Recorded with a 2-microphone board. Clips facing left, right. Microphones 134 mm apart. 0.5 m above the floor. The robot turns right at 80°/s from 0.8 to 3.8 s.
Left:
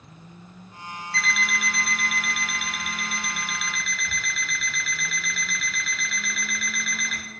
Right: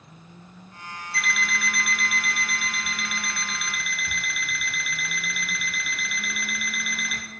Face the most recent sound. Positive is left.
turn(degrees=-165)